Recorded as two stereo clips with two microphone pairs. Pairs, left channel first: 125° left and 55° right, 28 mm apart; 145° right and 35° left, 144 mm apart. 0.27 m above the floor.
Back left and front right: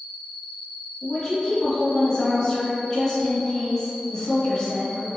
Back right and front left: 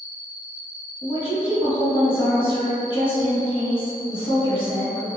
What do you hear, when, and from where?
0.0 s an insect: 155° left, 1.3 m
1.0 s a woman speaking: 170° right, 1.3 m